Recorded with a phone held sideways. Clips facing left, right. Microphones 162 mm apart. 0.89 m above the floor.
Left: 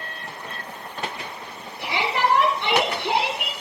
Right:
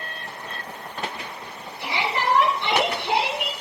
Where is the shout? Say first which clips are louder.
Left 2 dB; 65° left (ahead or behind), 9 m; by 3.5 s 50° left (ahead or behind), 9 m.